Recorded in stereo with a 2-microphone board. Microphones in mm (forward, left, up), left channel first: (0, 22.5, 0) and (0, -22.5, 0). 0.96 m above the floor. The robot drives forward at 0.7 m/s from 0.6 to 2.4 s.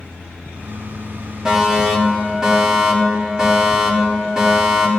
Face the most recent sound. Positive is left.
turn(degrees=-15)  # may be behind; listen again after turning